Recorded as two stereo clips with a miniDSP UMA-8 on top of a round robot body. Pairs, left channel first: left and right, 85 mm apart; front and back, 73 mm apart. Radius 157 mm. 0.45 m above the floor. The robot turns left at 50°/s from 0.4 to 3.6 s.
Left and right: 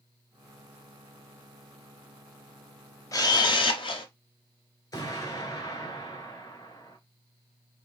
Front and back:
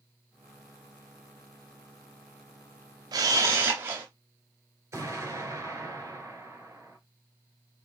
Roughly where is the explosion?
Behind left.